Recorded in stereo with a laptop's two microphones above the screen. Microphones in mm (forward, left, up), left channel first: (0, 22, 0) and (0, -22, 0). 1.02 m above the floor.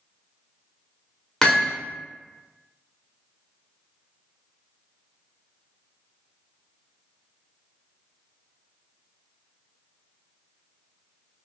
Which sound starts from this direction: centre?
Hammering, at 1.4 s.